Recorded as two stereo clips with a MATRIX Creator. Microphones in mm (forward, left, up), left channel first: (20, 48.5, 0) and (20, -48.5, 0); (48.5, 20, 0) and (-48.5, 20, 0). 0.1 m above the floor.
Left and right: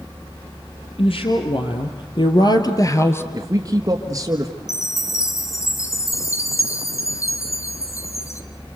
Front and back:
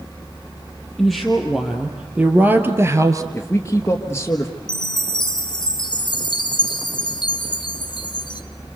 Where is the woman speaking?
90° left, 3 m; by 3.2 s 145° left, 1.7 m.